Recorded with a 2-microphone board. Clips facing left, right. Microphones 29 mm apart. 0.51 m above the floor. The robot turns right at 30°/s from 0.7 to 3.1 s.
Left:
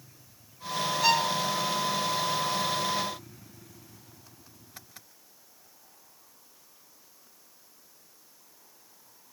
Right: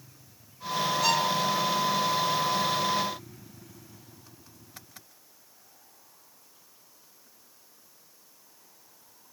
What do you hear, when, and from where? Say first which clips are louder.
1.0 s a violin: left 2 dB; 20° left (ahead or behind), 0.7 m; by 1.4 s 25° left (ahead or behind), 0.7 m